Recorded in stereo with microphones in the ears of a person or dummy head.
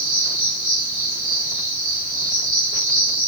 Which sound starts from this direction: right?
An insect, at 0.0 s.